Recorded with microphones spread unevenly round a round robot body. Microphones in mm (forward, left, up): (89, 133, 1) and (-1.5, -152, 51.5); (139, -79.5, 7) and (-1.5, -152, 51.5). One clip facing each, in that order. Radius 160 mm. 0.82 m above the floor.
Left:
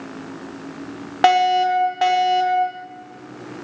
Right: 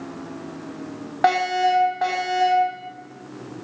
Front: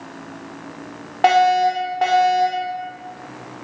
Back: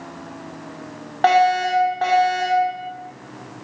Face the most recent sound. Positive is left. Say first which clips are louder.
# left 4 dB, front 2 dB
turn(degrees=100)